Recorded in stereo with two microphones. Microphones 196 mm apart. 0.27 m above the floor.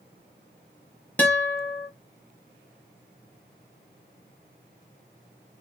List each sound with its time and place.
1.2 s a guitar: 10° left (ahead or behind), 1.2 m